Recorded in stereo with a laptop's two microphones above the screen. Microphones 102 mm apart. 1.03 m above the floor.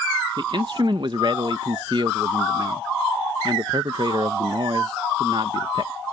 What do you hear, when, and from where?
0.4 s a man speaking: 50° right (ahead or behind)